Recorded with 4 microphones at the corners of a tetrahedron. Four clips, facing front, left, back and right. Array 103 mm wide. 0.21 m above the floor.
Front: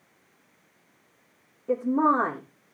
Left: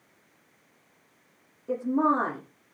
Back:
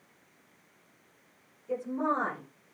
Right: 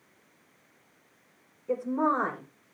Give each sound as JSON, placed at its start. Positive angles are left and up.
{"t": 1.7, "sound": "a woman speaking", "azimuth_deg": 20, "distance_m": 9.5}